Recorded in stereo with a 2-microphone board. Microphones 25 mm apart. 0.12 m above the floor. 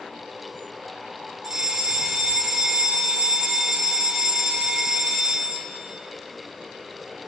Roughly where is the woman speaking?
No woman speaking in this recording.